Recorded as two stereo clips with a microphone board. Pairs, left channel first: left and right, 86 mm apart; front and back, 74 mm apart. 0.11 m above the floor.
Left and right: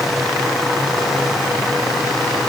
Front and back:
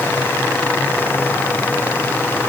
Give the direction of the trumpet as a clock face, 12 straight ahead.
I don't hear a trumpet.